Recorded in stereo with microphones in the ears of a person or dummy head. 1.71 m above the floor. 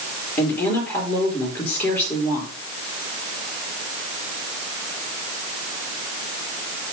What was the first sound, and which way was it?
A woman speaking, 15° left (ahead or behind).